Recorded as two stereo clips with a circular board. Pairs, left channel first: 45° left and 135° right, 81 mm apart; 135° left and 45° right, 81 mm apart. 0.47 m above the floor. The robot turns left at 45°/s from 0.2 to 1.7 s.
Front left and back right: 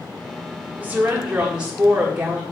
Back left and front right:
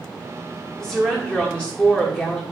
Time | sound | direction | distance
0.8 | a woman speaking | 150° right | 1.0 m